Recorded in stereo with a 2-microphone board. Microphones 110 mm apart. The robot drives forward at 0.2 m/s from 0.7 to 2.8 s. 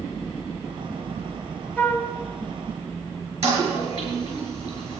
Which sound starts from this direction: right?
A toilet flushing, at 3.4 s.